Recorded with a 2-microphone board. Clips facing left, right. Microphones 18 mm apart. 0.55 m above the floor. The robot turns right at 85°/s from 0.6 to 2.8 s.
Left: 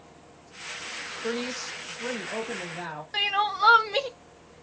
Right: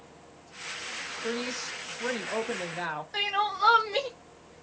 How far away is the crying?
About 0.6 m.